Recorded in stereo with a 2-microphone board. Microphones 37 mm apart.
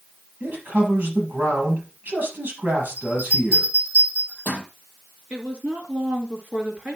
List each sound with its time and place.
0.4 s a man speaking: 55° right (ahead or behind), 4.5 m
3.0 s a bell: 60° right (ahead or behind), 6 m
5.3 s a woman speaking: 30° right (ahead or behind), 2.5 m